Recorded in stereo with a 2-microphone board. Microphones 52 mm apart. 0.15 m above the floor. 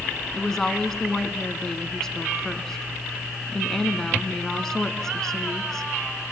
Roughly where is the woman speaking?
Centre.